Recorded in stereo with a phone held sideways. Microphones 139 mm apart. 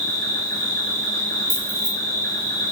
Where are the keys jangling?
35° right (ahead or behind), 1.0 m.